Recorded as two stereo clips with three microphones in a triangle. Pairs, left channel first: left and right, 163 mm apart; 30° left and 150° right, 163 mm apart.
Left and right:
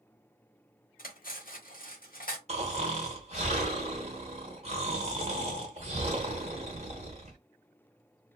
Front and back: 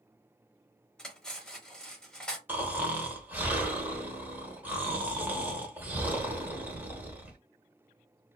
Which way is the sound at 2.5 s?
75° right.